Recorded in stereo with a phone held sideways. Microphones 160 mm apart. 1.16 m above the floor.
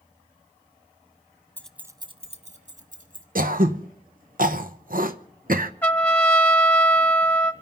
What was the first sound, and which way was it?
Keys jangling, 15° left (ahead or behind).